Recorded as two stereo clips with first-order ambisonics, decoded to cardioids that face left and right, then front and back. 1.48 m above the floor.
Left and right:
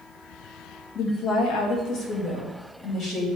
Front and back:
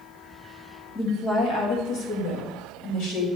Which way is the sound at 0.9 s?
60° left.